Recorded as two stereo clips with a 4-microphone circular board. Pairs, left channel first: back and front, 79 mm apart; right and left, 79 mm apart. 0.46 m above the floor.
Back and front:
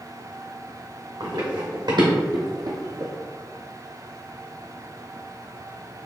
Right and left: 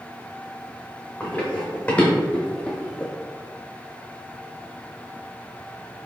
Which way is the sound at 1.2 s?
20° right.